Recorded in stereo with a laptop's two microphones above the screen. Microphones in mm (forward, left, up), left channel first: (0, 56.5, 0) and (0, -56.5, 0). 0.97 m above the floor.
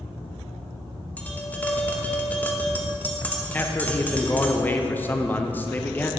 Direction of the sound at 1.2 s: 15° left (ahead or behind).